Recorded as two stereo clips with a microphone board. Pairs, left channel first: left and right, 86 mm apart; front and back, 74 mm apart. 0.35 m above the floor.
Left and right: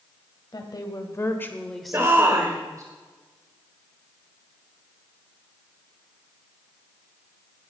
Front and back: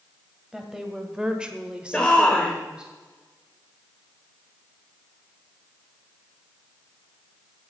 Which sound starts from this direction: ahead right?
A shout, at 1.9 s.